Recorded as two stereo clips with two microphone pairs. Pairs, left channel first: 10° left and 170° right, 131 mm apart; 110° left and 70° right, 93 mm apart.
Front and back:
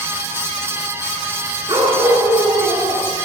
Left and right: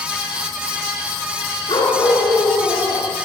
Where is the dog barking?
130° left, 5 m.